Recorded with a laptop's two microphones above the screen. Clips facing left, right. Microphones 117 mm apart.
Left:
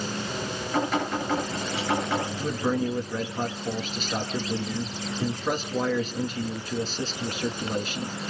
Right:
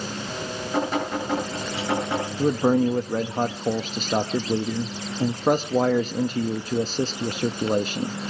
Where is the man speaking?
40° right (ahead or behind), 1.0 m.